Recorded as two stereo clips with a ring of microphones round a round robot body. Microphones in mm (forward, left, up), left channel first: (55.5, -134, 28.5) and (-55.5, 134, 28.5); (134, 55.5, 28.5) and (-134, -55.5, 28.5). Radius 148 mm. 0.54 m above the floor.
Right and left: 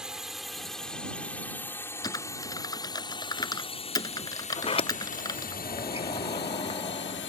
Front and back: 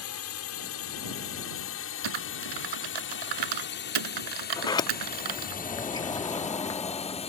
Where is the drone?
25° left; by 7.3 s 40° right.